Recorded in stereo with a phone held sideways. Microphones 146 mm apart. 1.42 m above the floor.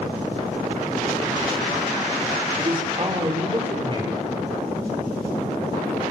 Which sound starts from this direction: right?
A man speaking, at 2.6 s.